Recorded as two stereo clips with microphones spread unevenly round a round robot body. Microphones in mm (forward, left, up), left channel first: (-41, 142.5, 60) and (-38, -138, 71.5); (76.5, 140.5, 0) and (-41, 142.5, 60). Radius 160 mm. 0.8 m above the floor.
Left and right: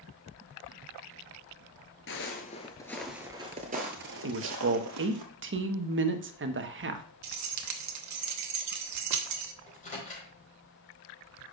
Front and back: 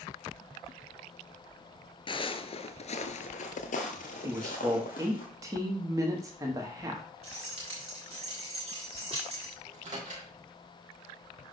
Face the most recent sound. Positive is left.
turn(degrees=155)